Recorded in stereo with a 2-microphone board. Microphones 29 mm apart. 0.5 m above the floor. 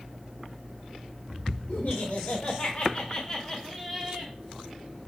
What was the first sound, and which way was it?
Laughter, 55° left (ahead or behind).